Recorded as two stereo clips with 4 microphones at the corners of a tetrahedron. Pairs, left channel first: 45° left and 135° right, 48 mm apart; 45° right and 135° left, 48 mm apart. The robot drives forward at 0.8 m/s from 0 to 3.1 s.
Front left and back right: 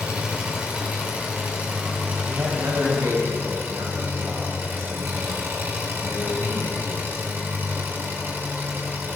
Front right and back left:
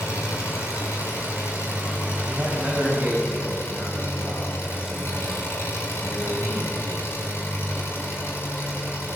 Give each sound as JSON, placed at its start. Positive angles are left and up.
{"t": 0.0, "sound": "an engine running", "azimuth_deg": -65, "distance_m": 6.5}
{"t": 2.2, "sound": "a man speaking", "azimuth_deg": -165, "distance_m": 4.5}